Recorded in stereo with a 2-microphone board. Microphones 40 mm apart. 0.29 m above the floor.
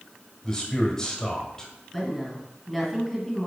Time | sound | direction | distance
0.4 | a man speaking | 20° left (ahead or behind) | 1.4 m
1.9 | a woman speaking | 5° right (ahead or behind) | 1.9 m